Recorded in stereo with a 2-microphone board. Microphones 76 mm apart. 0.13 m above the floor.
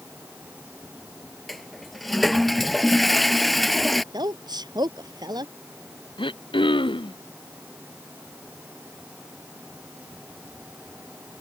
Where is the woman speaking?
55° right (ahead or behind).